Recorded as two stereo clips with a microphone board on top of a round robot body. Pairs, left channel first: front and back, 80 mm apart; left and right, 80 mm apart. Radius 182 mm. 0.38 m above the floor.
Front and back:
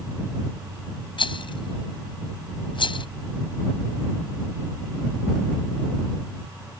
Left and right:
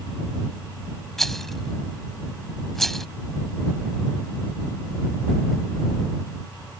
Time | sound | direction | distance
1.2 | a rattle | 5° left | ?